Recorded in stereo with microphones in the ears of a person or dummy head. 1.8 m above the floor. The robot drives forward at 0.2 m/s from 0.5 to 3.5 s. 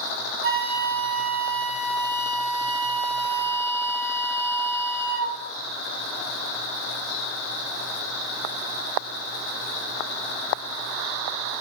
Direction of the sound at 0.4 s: 70° right (ahead or behind).